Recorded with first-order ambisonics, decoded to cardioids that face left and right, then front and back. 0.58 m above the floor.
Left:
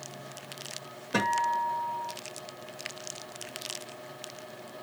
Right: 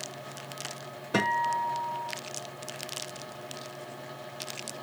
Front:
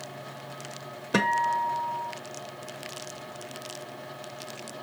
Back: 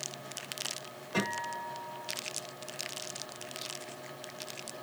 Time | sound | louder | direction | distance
1.1 | a guitar | even, front 10 dB | 10° right | 1.5 m